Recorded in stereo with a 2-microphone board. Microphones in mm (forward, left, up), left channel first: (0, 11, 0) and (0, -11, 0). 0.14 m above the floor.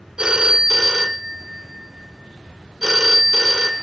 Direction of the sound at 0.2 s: 40° right (ahead or behind).